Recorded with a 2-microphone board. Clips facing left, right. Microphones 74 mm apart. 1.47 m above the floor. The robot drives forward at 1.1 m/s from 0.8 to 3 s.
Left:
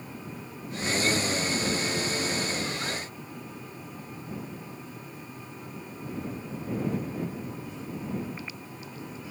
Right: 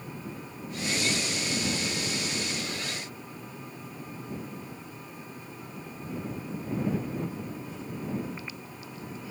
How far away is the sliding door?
No sliding door in this recording.